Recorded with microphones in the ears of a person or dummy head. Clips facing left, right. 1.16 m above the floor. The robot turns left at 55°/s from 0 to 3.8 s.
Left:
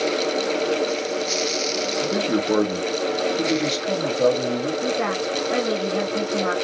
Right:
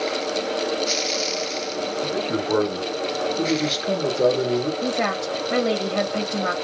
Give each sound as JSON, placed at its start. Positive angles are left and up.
{"t": 2.0, "sound": "a man speaking", "azimuth_deg": 65, "distance_m": 1.4}
{"t": 4.8, "sound": "a woman speaking", "side_deg": -60, "distance_m": 1.3}